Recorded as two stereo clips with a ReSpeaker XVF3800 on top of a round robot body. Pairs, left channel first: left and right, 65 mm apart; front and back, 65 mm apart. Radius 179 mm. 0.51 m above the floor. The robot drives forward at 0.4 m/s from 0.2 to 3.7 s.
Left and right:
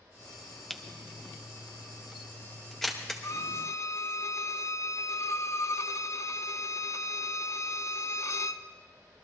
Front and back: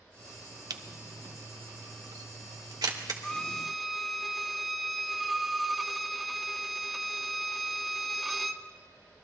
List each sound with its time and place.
0.7 s a camera shutter: 175° left, 1.0 m
3.2 s a violin: 75° left, 1.0 m; by 8.6 s 90° left, 0.9 m